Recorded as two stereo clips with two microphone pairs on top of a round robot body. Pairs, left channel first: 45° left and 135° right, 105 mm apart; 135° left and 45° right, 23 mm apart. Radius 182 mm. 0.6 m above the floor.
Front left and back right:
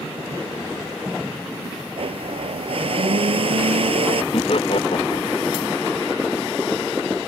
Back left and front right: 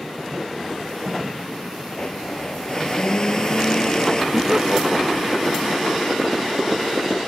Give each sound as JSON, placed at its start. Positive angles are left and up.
{"t": 2.0, "sound": "a blender", "azimuth_deg": -165}
{"t": 4.3, "sound": "laughter", "azimuth_deg": 25}